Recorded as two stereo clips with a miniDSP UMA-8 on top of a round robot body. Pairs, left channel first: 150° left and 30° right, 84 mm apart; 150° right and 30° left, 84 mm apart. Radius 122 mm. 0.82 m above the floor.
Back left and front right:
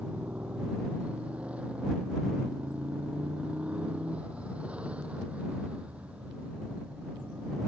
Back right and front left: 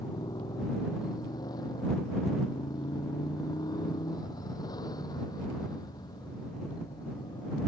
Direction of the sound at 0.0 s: 105° right.